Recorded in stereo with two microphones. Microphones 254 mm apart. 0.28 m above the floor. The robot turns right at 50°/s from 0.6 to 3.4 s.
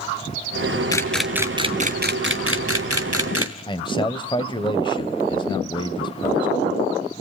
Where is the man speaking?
20° left (ahead or behind), 1.0 m.